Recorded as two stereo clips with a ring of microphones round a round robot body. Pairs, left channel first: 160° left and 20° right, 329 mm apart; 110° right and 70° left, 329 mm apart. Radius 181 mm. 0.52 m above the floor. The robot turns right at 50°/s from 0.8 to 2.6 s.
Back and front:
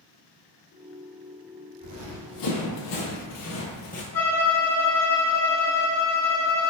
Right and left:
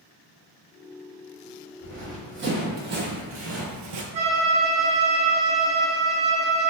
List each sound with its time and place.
1.8 s running footsteps: 100° left, 1.7 m; by 4.0 s 90° left, 0.8 m
4.1 s a violin: 125° left, 2.0 m